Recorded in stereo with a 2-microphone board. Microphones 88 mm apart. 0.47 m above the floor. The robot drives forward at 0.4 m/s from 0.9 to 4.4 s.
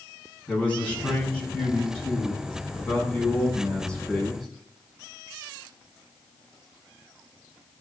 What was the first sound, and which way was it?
A man speaking, 15° left (ahead or behind).